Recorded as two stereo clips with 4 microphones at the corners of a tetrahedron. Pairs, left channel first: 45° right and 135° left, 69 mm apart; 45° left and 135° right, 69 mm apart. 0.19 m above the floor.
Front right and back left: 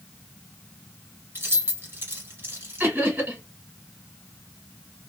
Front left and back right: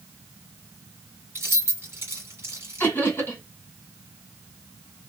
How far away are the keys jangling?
About 1.6 m.